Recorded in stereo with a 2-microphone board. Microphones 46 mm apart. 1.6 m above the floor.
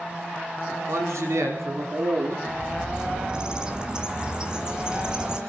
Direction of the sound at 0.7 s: 80° right.